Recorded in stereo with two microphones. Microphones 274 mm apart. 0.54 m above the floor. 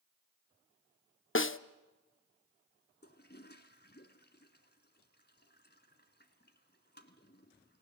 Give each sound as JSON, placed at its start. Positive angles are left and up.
{"t": 1.4, "sound": "a snare drum", "side_deg": 50, "distance_m": 0.6}
{"t": 3.0, "sound": "a toilet flushing", "side_deg": 40, "distance_m": 1.8}